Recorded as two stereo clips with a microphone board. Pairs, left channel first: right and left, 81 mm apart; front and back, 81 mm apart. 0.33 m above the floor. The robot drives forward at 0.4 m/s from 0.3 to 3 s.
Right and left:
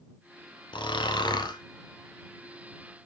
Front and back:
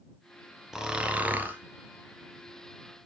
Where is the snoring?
100° right, 0.9 m; by 3.1 s 140° right, 1.4 m.